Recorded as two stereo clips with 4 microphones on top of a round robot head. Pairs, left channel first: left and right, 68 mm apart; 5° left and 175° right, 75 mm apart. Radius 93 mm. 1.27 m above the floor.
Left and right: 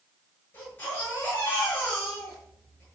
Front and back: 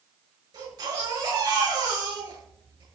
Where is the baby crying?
155° left, 8.5 m.